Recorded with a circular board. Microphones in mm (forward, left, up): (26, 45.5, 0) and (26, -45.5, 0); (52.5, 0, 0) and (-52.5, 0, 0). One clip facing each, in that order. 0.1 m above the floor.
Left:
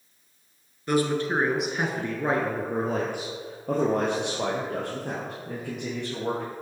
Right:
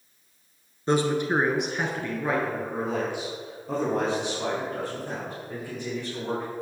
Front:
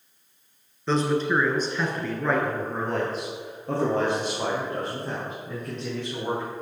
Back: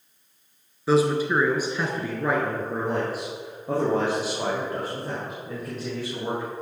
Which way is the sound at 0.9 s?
105° right.